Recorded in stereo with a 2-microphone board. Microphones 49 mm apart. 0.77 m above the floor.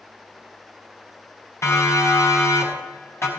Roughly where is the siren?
Left.